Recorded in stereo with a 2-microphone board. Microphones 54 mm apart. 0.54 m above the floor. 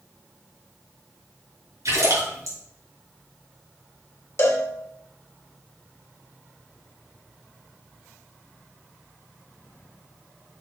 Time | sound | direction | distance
1.9 | a splash | 75° right (ahead or behind) | 4 m
4.4 | a cowbell | 45° left (ahead or behind) | 1.6 m